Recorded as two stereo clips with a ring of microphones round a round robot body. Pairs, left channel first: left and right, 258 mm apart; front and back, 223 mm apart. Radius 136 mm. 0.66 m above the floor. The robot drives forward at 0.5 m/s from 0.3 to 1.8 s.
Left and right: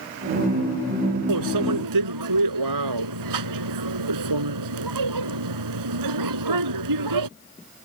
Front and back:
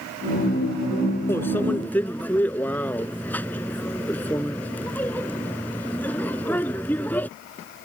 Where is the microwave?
80° right; by 7.3 s 85° right.